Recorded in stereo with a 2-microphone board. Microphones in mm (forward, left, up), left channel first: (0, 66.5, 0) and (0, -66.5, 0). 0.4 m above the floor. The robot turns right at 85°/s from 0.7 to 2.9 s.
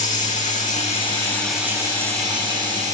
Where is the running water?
110° left, 10 m; by 2.9 s 65° right, 10 m.